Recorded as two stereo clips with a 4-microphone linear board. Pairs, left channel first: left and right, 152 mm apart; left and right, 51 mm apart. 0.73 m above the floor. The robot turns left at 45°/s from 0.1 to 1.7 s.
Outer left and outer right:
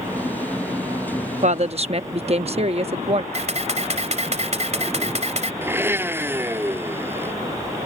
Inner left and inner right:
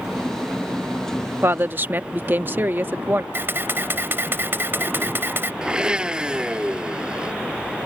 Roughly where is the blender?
Centre.